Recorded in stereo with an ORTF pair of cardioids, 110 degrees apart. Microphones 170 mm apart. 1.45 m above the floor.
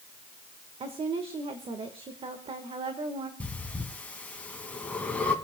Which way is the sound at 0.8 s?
35° right.